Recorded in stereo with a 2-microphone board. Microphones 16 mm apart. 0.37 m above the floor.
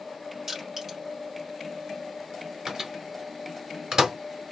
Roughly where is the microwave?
Right.